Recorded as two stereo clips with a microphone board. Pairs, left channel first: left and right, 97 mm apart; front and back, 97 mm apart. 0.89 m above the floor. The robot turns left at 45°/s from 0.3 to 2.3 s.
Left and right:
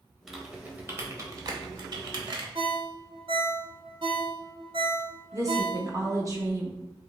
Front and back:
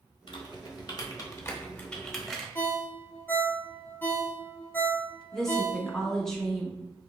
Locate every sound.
0.3 s typing on a keyboard: 5° right, 0.9 m; by 2.5 s 95° right, 0.9 m
2.5 s a ringtone: 70° right, 0.8 m
5.3 s a woman speaking: 85° right, 1.0 m